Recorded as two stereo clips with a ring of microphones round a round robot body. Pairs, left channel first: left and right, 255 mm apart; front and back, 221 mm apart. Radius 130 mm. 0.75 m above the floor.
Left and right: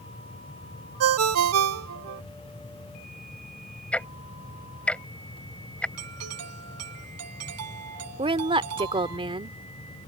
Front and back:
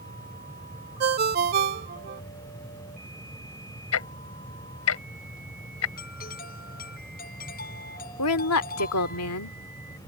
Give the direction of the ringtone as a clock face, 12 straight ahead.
4 o'clock.